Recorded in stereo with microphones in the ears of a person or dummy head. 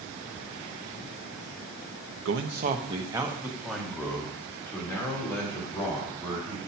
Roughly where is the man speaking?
Right.